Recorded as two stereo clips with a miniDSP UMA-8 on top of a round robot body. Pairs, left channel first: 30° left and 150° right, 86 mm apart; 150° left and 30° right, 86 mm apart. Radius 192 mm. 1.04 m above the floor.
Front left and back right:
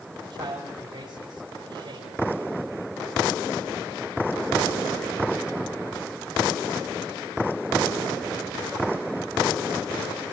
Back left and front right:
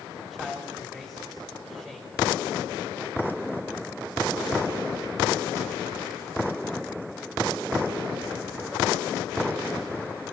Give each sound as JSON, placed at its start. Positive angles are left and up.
{"t": 0.2, "sound": "a man speaking", "azimuth_deg": -115, "distance_m": 8.0}